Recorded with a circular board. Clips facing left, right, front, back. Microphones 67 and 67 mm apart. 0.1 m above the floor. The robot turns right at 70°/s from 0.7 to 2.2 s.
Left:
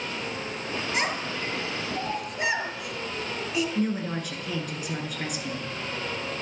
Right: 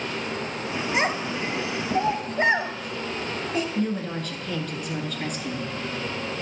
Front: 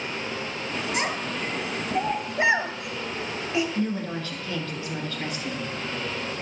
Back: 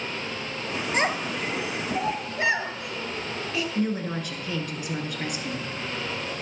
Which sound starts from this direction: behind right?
A child speaking, at 0.9 s.